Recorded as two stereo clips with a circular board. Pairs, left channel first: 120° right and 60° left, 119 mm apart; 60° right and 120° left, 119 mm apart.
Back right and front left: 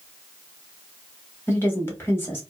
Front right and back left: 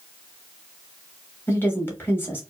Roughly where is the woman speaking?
Right.